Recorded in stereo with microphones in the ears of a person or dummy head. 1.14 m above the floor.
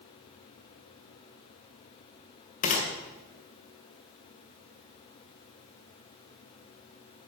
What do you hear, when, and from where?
2.6 s a gunshot: 40° left (ahead or behind), 2 m